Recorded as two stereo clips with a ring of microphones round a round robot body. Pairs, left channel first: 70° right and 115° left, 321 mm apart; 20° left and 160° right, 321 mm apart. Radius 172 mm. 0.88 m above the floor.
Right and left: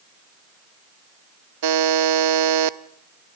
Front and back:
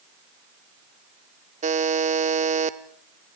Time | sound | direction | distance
1.6 | a buzzer | 135° left | 0.7 m